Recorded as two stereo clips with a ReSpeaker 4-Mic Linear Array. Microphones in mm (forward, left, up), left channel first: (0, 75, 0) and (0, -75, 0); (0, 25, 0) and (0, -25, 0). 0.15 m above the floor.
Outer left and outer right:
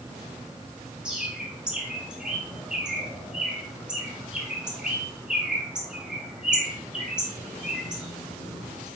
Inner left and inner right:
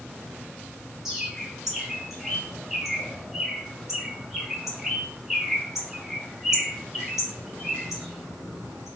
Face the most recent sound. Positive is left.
turn(degrees=-5)  # may be behind; listen again after turning